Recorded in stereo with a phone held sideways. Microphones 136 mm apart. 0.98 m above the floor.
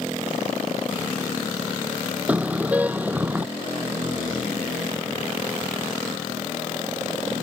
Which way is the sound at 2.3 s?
10° right (ahead or behind).